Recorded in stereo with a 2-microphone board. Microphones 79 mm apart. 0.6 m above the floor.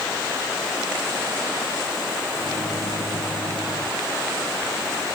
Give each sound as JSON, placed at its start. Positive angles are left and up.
{"t": 2.4, "sound": "a microwave", "side_deg": 80}